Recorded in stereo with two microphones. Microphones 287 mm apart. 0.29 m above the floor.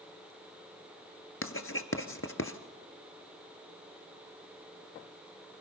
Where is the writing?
50° left (ahead or behind), 1.2 m.